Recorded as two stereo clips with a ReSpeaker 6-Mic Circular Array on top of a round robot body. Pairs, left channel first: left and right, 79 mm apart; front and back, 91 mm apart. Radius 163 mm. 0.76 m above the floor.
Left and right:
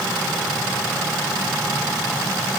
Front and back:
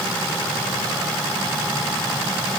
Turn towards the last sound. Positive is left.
No sound to turn to.